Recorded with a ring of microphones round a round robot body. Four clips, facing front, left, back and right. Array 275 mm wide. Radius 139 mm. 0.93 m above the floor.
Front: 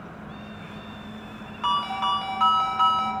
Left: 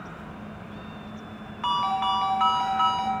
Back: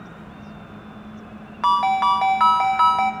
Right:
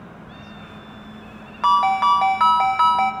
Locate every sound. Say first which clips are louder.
1.6 s a ringtone: right 9 dB, back 8 dB; 135° right, 1.5 m